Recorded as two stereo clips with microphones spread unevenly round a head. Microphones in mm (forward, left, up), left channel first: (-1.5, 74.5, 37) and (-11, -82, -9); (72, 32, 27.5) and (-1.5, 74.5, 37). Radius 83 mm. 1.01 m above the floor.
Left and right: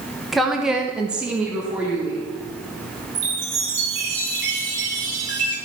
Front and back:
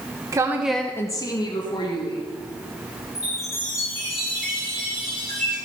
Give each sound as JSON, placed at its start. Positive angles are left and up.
{"t": 0.3, "sound": "a woman speaking", "azimuth_deg": -165, "distance_m": 1.0}
{"t": 3.1, "sound": "a chime", "azimuth_deg": -95, "distance_m": 4.5}